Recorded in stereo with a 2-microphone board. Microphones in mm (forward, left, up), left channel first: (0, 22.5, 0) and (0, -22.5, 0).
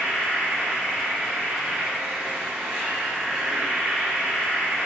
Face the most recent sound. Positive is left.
turn(degrees=-15)  # may be behind; listen again after turning